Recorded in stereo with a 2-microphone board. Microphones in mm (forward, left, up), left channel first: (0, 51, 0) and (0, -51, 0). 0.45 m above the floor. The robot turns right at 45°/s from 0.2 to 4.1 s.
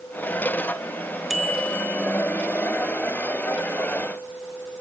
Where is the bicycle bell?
Straight ahead, 4.5 m; by 2.0 s 30° left, 4.5 m.